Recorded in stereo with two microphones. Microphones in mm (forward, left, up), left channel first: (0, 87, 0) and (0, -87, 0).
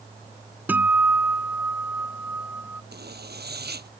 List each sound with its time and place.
0.7 s a guitar: 10° right (ahead or behind)
2.9 s a zipper: 75° right (ahead or behind)